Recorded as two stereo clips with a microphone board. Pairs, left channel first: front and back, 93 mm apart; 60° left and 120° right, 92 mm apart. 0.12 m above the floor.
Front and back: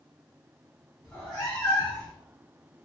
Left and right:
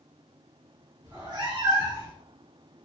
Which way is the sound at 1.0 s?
80° right.